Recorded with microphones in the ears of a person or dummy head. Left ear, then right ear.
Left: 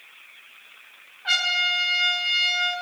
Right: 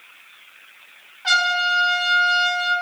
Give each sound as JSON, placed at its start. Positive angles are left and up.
{"t": 1.2, "sound": "a trumpet", "side_deg": -80, "distance_m": 4.0}